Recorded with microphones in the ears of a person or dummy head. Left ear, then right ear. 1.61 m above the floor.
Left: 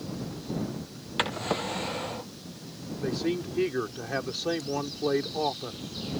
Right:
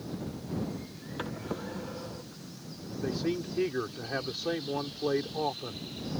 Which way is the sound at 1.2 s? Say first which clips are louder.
Left 9 dB; 15° left (ahead or behind).